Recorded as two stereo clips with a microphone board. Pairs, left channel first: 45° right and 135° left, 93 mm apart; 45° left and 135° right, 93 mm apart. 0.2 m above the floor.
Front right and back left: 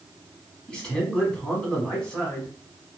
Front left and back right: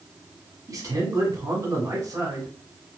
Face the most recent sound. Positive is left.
turn(degrees=-120)